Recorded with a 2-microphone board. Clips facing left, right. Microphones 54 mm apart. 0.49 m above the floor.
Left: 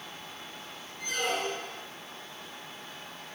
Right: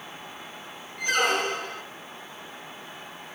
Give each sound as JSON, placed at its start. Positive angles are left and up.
{"t": 1.0, "sound": "a squeak", "side_deg": -70, "distance_m": 2.5}